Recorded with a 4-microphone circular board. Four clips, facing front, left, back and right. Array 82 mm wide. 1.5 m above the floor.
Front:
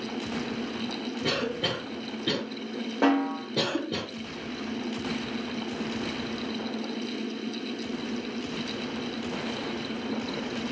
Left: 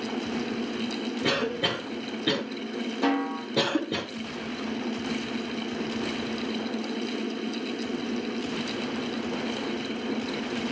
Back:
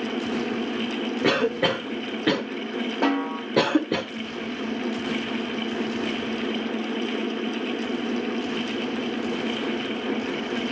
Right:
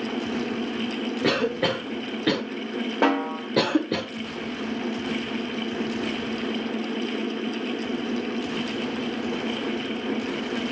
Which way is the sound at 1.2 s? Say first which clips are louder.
Right 5 dB, back 8 dB; 155° right.